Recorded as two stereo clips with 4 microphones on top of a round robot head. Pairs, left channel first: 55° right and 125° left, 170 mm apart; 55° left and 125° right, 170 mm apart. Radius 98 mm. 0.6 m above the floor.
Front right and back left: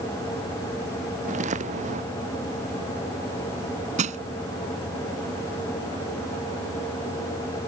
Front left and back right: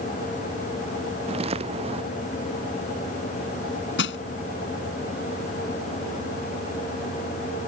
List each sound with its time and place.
1.3 s footsteps: 175° left
4.0 s crushing: 75° left